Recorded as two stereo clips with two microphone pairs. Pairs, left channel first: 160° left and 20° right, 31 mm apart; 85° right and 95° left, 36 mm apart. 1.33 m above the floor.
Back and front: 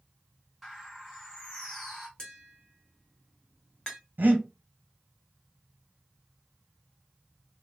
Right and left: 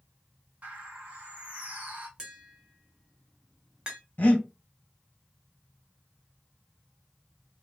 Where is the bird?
70° left, 1.4 m.